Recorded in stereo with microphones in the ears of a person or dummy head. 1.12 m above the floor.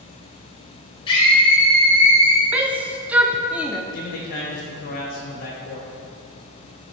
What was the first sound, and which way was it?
A scream, 20° left (ahead or behind).